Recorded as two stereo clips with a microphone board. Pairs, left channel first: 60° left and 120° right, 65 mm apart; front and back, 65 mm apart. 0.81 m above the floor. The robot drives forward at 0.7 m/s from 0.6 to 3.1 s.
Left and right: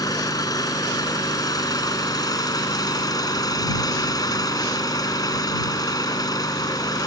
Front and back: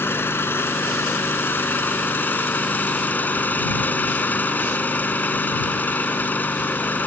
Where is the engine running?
55° left; by 7.1 s 65° left.